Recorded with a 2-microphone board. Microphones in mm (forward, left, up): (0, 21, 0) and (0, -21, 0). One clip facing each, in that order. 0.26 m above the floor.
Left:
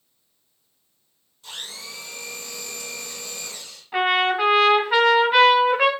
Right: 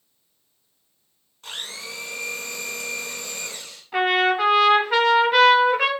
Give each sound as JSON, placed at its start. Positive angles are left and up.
{"t": 1.4, "sound": "a blender", "side_deg": -65, "distance_m": 1.4}
{"t": 3.9, "sound": "a trumpet", "side_deg": 10, "distance_m": 1.0}